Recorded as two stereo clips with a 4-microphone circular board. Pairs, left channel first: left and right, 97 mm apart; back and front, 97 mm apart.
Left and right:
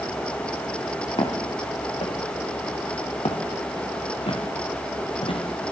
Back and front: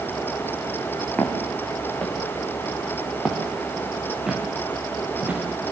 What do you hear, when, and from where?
1.2 s footsteps: 105° left, 6 m; by 5.4 s 70° left, 6.5 m